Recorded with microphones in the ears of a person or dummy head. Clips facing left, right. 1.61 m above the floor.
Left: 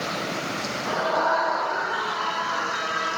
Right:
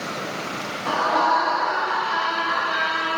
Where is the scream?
60° right (ahead or behind), 3 m; by 3.2 s 80° right, 3 m.